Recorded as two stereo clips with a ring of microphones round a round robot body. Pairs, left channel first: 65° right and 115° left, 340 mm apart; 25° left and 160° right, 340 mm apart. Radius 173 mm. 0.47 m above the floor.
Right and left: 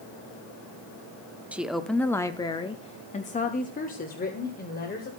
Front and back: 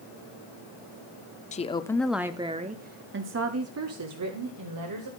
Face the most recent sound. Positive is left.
turn(degrees=-130)